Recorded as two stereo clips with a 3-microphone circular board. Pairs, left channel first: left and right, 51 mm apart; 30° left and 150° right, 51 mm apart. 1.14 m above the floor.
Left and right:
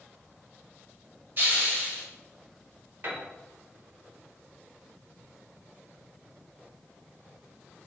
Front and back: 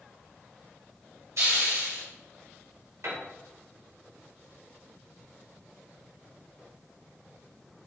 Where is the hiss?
140° right, 1.7 m.